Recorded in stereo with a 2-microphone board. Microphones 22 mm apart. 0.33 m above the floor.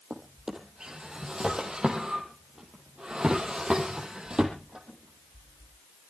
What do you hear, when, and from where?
0.1 s a drawer: 40° right (ahead or behind), 3 m